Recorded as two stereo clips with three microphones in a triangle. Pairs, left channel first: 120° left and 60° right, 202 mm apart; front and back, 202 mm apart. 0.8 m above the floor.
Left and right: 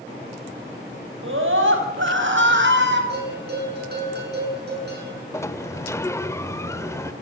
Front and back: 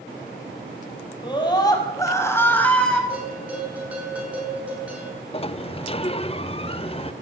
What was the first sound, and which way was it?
A scream, 65° right.